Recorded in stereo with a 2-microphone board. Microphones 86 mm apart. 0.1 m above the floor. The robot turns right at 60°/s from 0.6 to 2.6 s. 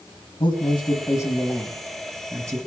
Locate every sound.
0.4 s a man speaking: 105° left, 4.5 m; by 2.6 s 135° right, 4.5 m